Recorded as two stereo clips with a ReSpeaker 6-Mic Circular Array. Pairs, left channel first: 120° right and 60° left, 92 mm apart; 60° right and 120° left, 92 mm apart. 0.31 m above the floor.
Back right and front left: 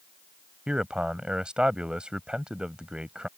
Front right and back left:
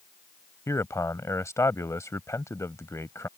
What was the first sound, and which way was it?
A man speaking, 15° right.